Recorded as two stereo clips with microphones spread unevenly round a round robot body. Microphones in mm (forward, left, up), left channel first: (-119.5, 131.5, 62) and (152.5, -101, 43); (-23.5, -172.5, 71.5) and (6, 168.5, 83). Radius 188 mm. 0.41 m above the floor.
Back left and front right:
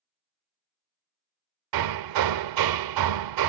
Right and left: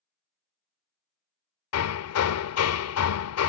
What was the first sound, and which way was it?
Hammering, 55° right.